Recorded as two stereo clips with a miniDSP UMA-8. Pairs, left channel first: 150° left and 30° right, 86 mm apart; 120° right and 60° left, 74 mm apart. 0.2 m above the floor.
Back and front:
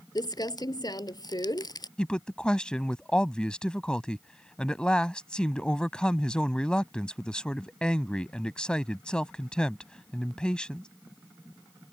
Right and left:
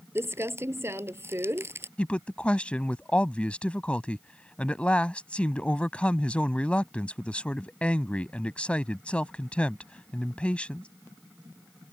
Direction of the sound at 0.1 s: 115° left.